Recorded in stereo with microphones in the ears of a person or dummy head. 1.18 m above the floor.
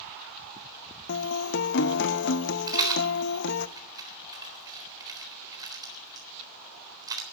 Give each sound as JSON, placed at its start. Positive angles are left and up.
{"t": 1.1, "sound": "a guitar", "side_deg": 60, "distance_m": 0.7}
{"t": 2.7, "sound": "a rattle", "side_deg": -20, "distance_m": 3.5}